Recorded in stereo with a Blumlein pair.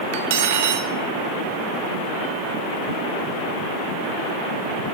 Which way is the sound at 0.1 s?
55° right.